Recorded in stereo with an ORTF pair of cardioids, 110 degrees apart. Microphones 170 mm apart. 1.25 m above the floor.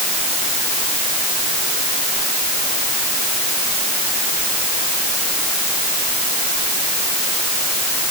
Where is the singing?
No singing in this recording.